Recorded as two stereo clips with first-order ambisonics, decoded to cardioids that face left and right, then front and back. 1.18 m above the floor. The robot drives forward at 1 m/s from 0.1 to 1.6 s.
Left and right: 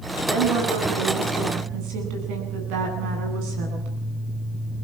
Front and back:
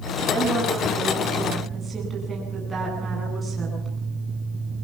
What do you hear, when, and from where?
0.3 s a woman speaking: 95° right, 9.5 m; by 3.9 s 100° right, 9.5 m